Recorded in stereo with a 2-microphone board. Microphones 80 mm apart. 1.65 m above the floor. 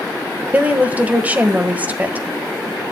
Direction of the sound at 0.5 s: 20° right (ahead or behind).